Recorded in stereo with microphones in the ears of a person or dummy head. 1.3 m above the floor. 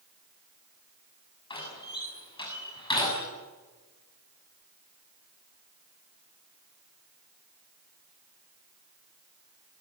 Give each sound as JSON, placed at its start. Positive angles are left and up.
{"t": 1.5, "sound": "a door slam", "side_deg": 30, "distance_m": 7.0}